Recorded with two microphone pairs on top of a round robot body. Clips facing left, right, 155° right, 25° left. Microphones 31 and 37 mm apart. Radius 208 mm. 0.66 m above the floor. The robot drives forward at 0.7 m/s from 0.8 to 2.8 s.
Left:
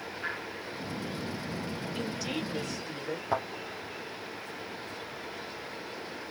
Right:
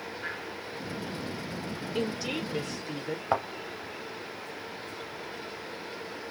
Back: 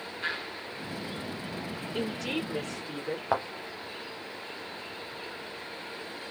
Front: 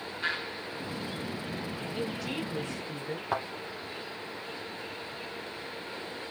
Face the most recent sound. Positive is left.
turn(degrees=-175)